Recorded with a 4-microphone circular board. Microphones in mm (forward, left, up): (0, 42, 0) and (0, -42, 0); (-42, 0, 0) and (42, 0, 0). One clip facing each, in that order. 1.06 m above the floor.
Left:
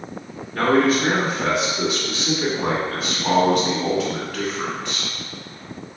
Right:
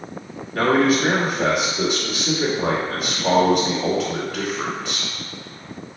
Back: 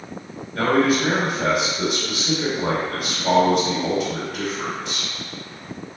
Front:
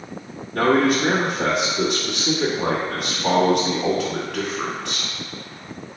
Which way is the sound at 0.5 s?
5° right.